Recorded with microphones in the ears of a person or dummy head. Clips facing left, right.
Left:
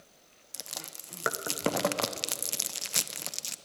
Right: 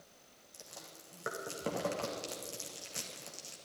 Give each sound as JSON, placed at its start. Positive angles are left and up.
{"t": 0.5, "sound": "chewing", "side_deg": 90, "distance_m": 0.7}